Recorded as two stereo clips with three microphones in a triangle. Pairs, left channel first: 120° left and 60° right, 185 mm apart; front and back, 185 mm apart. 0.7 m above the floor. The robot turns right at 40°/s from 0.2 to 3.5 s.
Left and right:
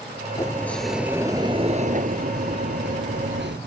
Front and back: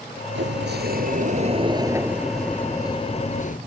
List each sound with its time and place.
0.3 s a sliding door: 170° right; by 3.6 s 45° right